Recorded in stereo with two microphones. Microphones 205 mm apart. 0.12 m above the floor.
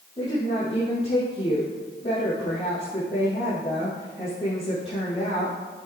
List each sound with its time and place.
0.2 s a woman speaking: 25° left (ahead or behind), 4 m